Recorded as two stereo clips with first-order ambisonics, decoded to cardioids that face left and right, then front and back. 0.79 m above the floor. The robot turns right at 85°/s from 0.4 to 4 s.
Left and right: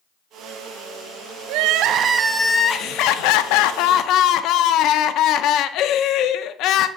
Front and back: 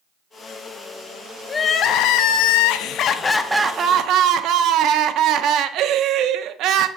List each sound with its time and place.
1.5 s crying: 80° right, 0.7 m; by 6.9 s 135° left, 0.7 m